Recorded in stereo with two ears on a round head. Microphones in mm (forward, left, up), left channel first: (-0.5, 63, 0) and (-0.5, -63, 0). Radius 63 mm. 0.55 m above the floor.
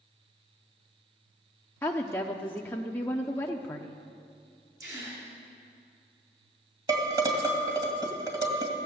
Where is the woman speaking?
15° left (ahead or behind), 0.8 m.